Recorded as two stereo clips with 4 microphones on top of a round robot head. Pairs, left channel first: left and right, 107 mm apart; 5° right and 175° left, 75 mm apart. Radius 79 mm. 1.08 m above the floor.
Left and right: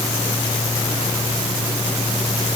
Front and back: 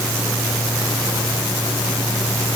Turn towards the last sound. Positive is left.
No sound to turn to.